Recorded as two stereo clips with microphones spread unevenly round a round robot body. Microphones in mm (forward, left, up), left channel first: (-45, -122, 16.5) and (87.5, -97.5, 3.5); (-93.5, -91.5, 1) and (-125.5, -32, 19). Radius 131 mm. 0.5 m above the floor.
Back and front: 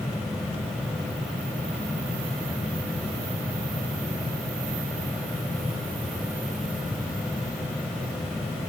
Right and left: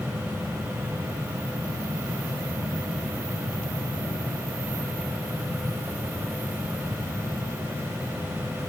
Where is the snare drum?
I don't hear a snare drum.